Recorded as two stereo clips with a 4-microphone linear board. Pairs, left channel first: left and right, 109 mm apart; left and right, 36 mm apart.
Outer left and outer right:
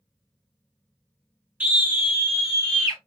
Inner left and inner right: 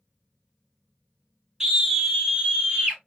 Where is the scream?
15° right (ahead or behind), 1.6 m; by 3.0 s 35° right (ahead or behind), 1.9 m.